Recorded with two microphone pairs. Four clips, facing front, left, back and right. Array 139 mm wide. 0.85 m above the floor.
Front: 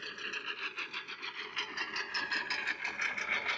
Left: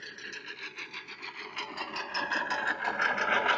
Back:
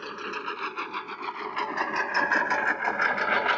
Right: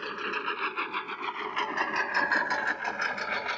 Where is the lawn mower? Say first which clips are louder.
Right 12 dB, back 10 dB; 135° right; by 3.6 s 150° left.